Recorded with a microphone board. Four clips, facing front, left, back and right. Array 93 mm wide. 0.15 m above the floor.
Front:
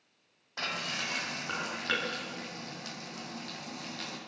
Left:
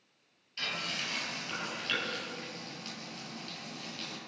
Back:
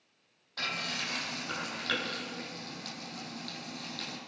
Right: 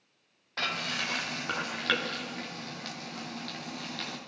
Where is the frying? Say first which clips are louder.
Right 5 dB, front 1 dB; 70° right, 5.5 m.